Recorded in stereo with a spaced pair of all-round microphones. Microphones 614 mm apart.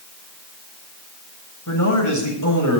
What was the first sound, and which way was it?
A man speaking, 30° left (ahead or behind).